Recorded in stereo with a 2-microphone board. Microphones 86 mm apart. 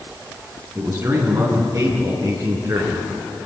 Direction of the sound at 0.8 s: 35° right (ahead or behind).